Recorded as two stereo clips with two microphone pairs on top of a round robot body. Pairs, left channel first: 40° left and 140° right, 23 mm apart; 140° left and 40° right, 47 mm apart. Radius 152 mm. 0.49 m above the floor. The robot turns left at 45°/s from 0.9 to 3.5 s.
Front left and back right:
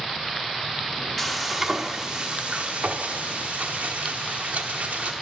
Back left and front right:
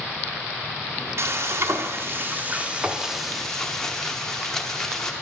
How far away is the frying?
About 0.9 m.